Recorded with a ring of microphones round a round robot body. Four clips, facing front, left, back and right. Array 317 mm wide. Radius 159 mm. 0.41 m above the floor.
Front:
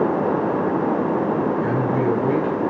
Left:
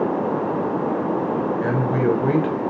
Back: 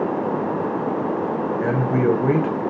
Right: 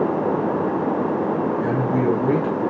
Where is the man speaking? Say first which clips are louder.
Left 1 dB, back 1 dB; 150° left, 1.9 m.